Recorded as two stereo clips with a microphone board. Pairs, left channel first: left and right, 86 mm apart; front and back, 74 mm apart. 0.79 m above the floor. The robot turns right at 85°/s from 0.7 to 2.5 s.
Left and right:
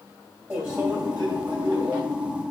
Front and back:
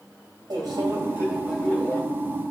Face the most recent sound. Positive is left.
turn(degrees=-15)